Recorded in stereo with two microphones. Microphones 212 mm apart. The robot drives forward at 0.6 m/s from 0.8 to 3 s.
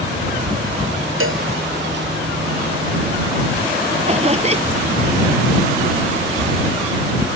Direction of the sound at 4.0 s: 30° right (ahead or behind).